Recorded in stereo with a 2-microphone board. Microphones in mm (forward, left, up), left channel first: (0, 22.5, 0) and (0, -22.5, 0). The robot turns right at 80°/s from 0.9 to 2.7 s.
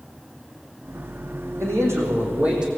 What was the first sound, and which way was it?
A man speaking, 100° right.